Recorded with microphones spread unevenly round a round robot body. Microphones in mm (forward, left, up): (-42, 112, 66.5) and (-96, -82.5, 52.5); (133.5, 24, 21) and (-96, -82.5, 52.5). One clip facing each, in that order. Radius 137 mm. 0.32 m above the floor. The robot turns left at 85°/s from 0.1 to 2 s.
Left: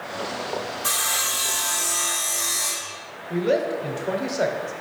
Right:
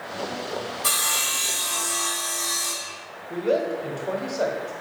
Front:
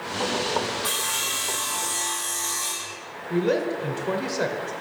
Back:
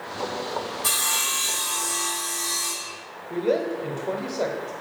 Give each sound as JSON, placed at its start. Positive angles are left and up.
{"t": 0.8, "sound": "sawing", "azimuth_deg": -125, "distance_m": 2.0}
{"t": 3.3, "sound": "a woman speaking", "azimuth_deg": 10, "distance_m": 1.0}